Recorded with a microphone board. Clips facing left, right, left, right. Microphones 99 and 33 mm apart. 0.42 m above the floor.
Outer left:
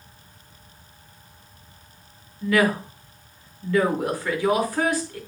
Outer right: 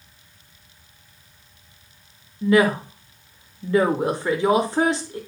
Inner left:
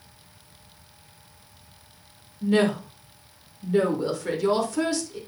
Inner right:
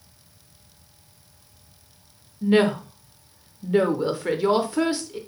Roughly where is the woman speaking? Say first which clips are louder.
Outer right 3 dB, inner right 3 dB; right.